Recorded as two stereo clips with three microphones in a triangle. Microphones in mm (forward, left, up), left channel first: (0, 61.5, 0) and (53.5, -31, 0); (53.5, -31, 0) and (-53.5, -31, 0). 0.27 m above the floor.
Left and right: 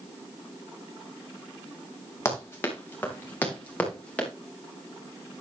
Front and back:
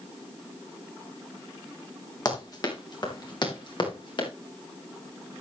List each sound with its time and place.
2.2 s running footsteps: 55° left, 5 m; by 4.3 s 40° left, 6.5 m